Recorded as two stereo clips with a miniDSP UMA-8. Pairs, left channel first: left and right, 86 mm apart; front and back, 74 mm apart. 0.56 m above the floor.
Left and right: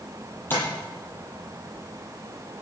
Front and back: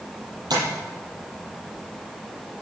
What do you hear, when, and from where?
0.5 s tapping: 155° left, 8.5 m